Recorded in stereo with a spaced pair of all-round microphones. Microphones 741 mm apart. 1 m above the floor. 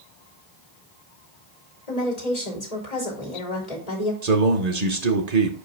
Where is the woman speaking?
60° left (ahead or behind), 2.5 m.